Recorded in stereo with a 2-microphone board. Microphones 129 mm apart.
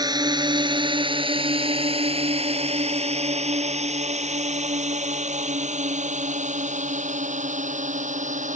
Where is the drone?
30° right (ahead or behind); by 8.6 s 75° right (ahead or behind).